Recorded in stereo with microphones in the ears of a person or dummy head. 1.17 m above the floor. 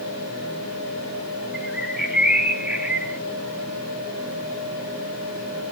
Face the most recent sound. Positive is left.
turn(degrees=-5)  # may be behind; listen again after turning